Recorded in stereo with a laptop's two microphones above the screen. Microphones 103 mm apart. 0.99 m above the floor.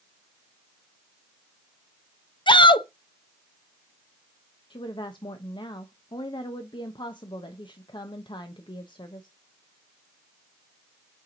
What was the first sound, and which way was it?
A shout, 50° left (ahead or behind).